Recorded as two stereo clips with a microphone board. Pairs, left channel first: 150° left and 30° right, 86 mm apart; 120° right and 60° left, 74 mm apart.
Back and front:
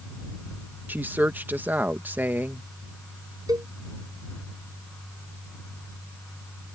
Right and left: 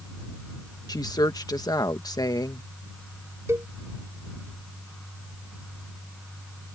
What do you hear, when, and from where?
0.9 s a woman speaking: 95° right
3.5 s a cowbell: 10° left